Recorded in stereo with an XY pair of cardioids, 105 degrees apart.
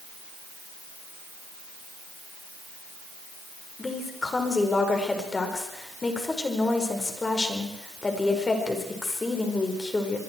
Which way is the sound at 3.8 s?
25° left.